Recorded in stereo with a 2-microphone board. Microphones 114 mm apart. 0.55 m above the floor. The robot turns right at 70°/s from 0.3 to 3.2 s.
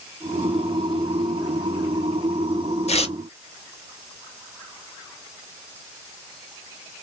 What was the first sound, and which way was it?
Tearing paper, 75° left (ahead or behind).